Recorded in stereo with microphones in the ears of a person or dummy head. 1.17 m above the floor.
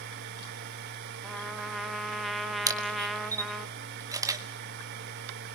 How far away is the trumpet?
About 1.4 m.